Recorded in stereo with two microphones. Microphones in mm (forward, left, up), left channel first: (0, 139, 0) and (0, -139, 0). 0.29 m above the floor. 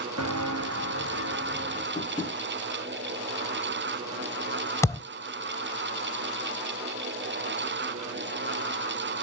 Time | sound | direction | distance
0.2 | footsteps | 75° right (ahead or behind) | 0.9 m
1.9 | tapping | 10° left (ahead or behind) | 6 m
4.8 | a thud | 10° left (ahead or behind) | 0.6 m